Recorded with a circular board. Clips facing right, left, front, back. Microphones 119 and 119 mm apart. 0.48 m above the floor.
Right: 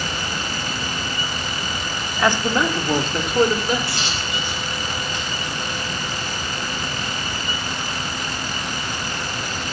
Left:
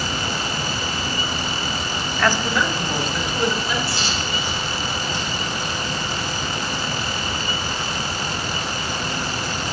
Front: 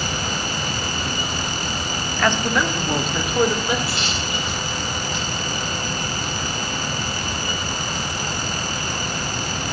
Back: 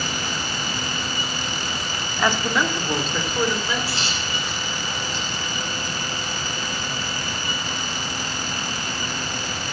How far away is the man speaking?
About 0.8 m.